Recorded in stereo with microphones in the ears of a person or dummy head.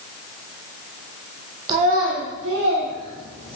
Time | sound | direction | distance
1.7 | a child speaking | 25° right (ahead or behind) | 0.7 m